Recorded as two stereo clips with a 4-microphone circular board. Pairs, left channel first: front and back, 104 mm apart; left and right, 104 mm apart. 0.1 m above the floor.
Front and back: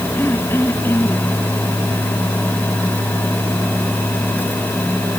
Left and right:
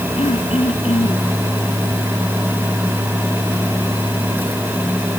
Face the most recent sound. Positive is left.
turn(degrees=70)